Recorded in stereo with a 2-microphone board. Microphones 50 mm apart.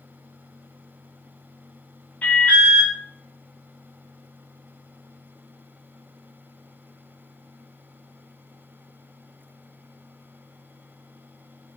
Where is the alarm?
25° left (ahead or behind), 3.5 m.